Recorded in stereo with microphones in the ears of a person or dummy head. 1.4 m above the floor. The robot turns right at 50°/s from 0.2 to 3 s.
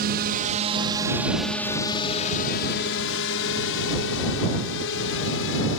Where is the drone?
50° right (ahead or behind); by 5.8 s 70° left (ahead or behind).